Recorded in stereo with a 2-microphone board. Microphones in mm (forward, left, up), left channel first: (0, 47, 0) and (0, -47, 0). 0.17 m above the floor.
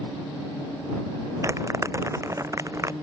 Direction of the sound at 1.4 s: 30° right (ahead or behind).